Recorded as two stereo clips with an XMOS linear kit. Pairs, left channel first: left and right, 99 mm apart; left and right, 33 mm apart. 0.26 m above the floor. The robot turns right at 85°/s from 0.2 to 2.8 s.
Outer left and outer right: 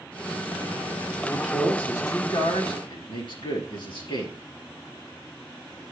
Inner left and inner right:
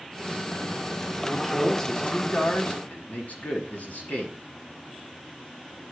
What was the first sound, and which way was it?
A man speaking, 20° right (ahead or behind).